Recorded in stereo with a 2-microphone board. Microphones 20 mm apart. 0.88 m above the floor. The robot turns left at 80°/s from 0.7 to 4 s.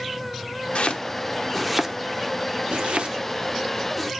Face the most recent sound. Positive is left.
turn(degrees=0)  # may be behind; listen again after turning